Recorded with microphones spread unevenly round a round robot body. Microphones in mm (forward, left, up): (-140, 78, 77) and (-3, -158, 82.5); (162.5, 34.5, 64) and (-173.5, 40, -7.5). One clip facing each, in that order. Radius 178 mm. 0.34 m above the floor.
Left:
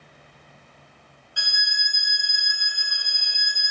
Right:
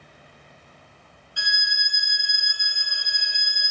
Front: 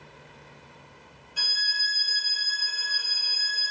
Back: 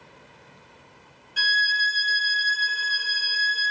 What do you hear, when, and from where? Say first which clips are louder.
1.4 s a violin: right 2 dB, back 11 dB; 110° left, 0.5 m